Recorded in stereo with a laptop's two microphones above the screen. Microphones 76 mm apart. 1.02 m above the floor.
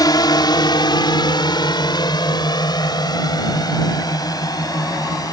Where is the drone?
60° left (ahead or behind); by 5.3 s 55° left (ahead or behind).